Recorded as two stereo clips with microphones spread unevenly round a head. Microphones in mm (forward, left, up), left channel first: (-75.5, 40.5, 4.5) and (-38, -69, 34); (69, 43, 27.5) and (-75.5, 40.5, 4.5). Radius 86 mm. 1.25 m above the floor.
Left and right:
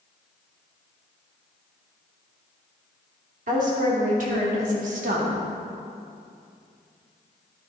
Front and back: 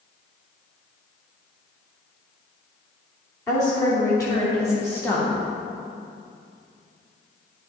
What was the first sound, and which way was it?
A woman speaking, 70° right.